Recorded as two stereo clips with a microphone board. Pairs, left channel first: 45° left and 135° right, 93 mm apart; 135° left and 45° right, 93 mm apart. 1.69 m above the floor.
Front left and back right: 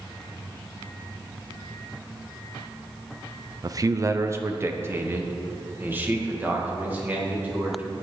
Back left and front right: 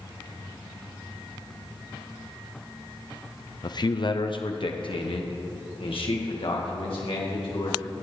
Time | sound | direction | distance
3.6 | a man speaking | 175° left | 0.7 m